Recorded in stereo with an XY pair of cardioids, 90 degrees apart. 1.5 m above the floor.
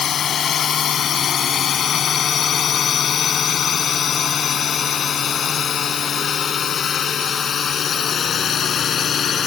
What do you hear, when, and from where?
0.0 s a drone: 60° left; by 9.5 s 55° left